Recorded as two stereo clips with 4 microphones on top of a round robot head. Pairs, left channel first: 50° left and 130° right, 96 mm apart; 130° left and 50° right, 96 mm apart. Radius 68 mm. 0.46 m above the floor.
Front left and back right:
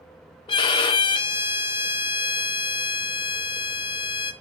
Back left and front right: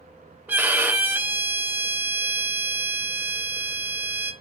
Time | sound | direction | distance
0.5 | a violin | 20° left | 0.9 m